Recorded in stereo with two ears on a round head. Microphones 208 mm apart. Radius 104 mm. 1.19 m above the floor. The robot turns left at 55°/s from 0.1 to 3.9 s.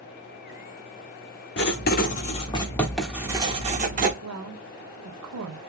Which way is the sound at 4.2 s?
75° right (ahead or behind).